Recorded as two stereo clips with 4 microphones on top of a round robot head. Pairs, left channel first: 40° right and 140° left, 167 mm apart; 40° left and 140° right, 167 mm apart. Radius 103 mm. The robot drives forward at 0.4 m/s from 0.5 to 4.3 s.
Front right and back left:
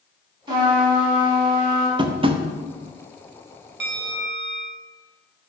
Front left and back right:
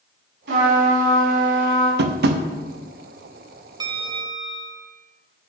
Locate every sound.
0.5 s a trumpet: 155° right, 4 m; by 1.9 s 160° right, 4.5 m
2.0 s tapping: 160° right, 0.7 m; by 2.4 s 165° right, 0.9 m
3.8 s a bell: 155° left, 0.9 m; by 4.9 s 160° left, 1.1 m